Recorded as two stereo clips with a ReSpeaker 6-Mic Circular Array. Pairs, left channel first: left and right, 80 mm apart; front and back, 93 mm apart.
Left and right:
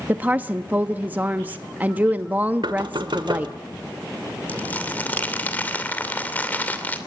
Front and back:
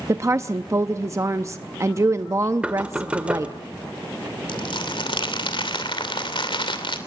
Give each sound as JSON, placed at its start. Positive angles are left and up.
{"t": 0.1, "sound": "a woman speaking", "azimuth_deg": -145, "distance_m": 0.6}
{"t": 2.6, "sound": "knocking", "azimuth_deg": -105, "distance_m": 1.6}
{"t": 4.5, "sound": "crumpling", "azimuth_deg": 20, "distance_m": 2.5}